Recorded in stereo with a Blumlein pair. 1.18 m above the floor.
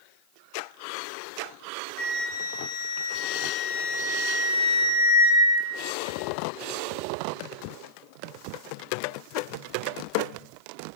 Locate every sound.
2.0 s a flute: 40° left, 4 m